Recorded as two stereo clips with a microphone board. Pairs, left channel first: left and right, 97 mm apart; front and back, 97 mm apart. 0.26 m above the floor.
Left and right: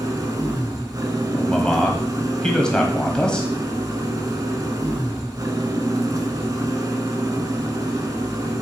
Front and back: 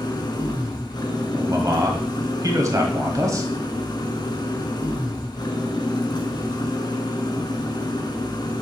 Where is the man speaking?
165° left, 1.2 m.